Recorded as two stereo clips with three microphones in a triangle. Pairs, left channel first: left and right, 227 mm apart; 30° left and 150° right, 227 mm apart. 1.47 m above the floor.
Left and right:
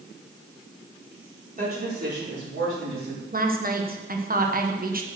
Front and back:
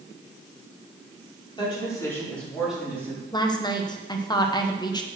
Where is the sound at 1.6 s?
40° right, 4.5 m; by 3.2 s 75° right, 3.5 m.